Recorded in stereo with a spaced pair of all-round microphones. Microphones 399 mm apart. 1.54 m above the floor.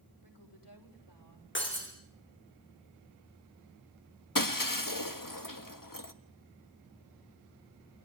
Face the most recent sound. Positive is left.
turn(degrees=55)  # may be behind; listen again after turning